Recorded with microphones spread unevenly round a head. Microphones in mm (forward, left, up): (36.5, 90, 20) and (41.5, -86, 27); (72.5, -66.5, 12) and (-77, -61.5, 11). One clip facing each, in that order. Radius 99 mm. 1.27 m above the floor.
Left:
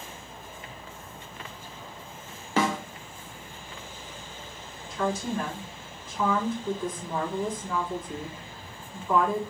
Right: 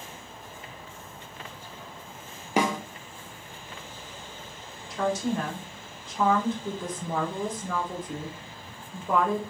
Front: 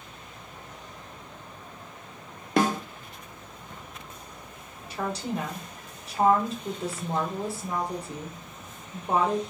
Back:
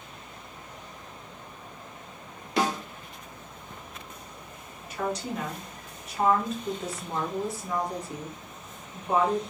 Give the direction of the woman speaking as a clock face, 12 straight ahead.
2 o'clock.